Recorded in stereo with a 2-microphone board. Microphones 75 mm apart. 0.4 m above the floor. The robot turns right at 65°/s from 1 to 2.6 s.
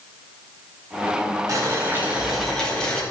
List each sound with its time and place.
1.5 s boiling: 60° right, 3 m; by 3.0 s 10° left, 3 m